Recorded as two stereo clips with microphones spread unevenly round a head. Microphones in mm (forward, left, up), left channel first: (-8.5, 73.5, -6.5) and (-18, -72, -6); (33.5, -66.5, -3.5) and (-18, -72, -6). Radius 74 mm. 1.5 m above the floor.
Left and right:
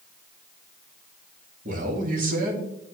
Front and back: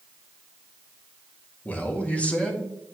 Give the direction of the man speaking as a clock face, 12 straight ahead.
2 o'clock.